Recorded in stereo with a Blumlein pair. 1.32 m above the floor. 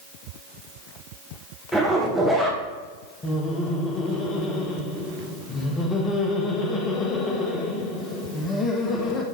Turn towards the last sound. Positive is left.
turn(degrees=20)